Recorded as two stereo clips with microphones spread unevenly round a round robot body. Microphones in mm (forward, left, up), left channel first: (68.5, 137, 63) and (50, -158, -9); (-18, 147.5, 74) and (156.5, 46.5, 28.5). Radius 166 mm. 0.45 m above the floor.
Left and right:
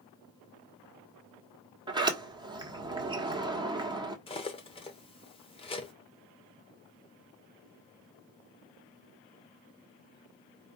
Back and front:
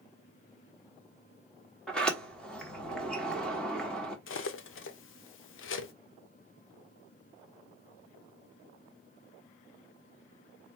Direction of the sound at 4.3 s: 165° left.